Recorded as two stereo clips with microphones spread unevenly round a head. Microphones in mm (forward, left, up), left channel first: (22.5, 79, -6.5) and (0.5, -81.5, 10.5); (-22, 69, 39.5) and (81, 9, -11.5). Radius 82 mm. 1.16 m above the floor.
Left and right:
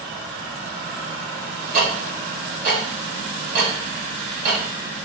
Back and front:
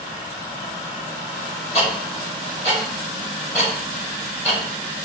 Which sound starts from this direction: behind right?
Ticking, at 1.7 s.